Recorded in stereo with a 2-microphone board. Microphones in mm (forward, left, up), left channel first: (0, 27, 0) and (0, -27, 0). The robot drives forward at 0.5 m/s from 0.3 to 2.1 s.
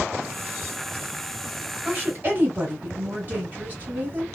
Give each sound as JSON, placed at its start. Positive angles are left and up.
{"t": 1.9, "sound": "a woman speaking", "side_deg": -35, "distance_m": 2.0}